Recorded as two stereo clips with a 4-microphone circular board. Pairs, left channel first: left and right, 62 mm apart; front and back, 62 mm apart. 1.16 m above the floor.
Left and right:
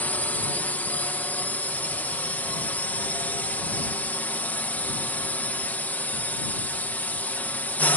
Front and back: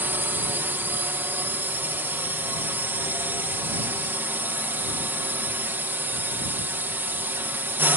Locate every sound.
0.0 s a drone: 140° left